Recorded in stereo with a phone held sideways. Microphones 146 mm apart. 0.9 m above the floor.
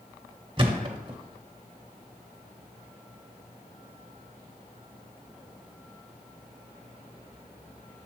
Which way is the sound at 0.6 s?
35° right (ahead or behind).